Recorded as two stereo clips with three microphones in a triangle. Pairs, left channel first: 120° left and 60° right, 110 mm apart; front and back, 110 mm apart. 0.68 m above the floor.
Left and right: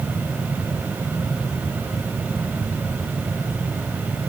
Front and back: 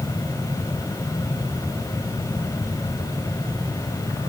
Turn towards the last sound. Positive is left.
No sound to turn to.